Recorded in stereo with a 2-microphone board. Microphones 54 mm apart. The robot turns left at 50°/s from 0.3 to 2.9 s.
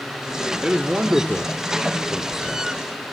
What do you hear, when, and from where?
0.6 s a man speaking: 15° right (ahead or behind), 0.7 m; by 2.7 s 5° right (ahead or behind), 0.7 m